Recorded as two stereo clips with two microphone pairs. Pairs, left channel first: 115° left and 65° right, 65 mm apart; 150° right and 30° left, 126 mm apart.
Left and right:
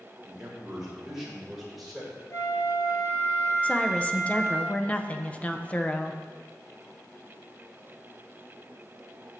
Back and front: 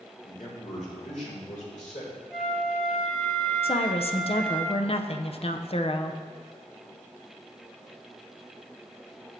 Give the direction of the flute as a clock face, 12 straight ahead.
8 o'clock.